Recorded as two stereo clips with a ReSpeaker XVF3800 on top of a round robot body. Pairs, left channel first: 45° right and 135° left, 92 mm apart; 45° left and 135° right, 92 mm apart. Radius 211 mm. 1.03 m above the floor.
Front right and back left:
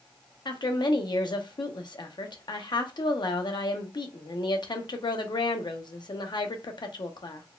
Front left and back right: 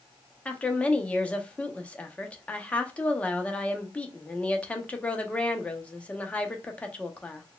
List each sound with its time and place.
0.5 s a woman speaking: 30° right, 0.8 m